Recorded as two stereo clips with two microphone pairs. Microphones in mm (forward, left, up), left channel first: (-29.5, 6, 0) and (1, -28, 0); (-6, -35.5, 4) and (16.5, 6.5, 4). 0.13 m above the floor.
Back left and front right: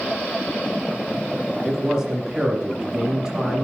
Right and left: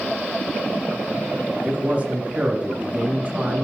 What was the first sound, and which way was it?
A man speaking, 20° left.